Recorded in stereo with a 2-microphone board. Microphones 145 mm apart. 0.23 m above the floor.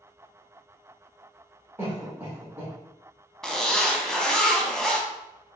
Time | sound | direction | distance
1.8 | a cough | 15° right (ahead or behind) | 1.7 m
3.4 | a zipper | 5° left (ahead or behind) | 0.6 m